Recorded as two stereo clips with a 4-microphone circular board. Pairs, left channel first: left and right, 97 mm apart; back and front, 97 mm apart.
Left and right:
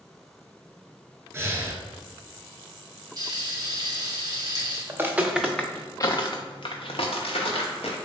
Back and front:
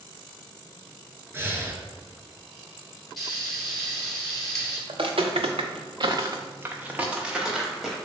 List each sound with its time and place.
1.3 s breathing: 45° right, 0.5 m
3.2 s frying: 90° right, 1.5 m
4.9 s footsteps: 25° right, 0.7 m; by 8.0 s 90° left, 1.3 m